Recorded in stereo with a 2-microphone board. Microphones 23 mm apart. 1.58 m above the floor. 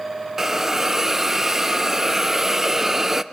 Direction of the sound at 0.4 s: 15° right (ahead or behind).